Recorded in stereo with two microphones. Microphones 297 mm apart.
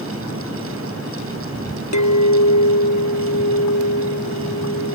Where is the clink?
70° left (ahead or behind).